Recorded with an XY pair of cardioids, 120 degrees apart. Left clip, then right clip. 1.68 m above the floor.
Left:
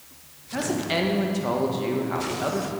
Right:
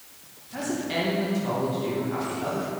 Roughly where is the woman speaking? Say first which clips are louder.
Left 3 dB; ahead left.